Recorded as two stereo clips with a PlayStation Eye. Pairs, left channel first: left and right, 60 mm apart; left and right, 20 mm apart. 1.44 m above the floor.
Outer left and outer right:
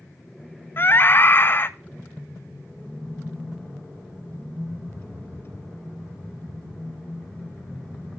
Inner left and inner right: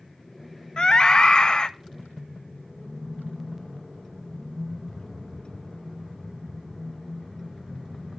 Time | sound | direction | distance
0.8 | a scream | 40° left (ahead or behind) | 0.9 m